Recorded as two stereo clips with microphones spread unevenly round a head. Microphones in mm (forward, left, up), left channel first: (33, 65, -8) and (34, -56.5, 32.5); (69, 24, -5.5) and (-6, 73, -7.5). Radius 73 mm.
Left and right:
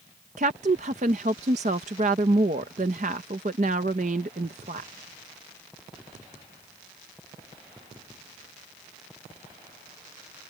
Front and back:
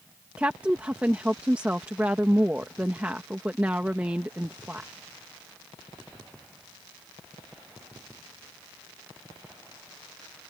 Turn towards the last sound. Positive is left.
turn(degrees=-135)